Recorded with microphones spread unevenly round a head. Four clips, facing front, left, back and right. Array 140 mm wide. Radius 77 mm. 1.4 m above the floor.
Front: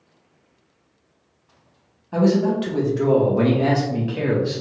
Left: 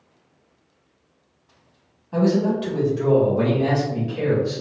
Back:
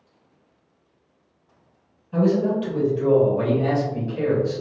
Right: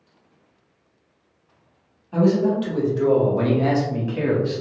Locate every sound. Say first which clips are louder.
2.1 s a man speaking: right 1 dB, front 2 dB; 10° left, 1.6 m; by 4.6 s 45° right, 1.3 m